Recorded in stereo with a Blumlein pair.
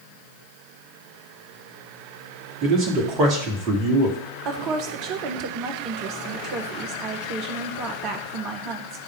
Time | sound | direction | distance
2.6 | a man speaking | 35° right | 1.9 m
4.5 | a woman speaking | 40° right | 1.2 m